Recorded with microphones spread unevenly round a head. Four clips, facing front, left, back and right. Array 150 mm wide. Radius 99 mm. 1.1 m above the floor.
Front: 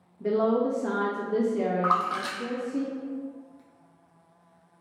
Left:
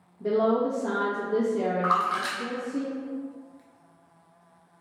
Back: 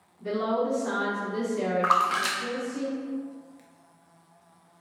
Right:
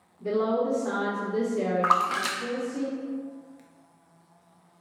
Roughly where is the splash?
Ahead right.